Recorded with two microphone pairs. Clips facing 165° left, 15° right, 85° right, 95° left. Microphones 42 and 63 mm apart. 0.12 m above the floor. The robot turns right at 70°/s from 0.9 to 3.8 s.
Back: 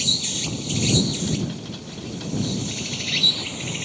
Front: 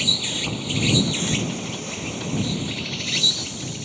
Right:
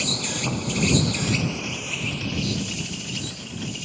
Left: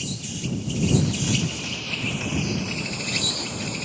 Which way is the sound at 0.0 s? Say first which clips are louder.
Front 2 dB, right 4 dB; 75° right.